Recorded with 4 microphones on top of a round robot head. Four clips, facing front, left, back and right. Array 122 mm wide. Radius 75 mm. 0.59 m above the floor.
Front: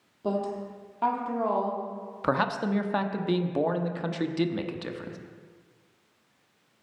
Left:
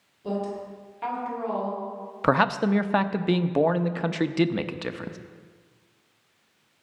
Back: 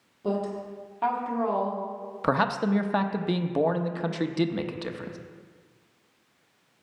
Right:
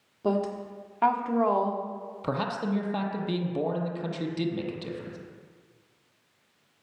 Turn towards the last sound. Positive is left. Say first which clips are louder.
# left 8 dB, back 2 dB
turn(degrees=100)